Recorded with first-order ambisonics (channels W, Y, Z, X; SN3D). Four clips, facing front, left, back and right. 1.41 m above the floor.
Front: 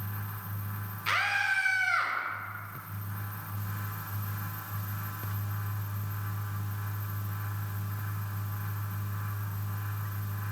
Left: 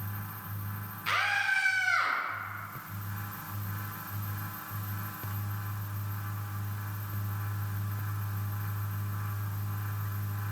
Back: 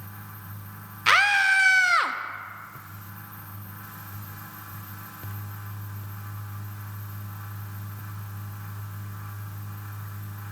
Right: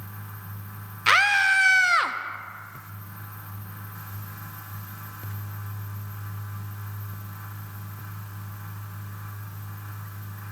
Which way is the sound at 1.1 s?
130° right.